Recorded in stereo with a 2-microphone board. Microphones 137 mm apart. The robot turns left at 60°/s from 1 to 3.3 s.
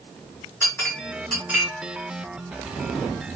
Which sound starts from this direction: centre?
A clink, at 0.6 s.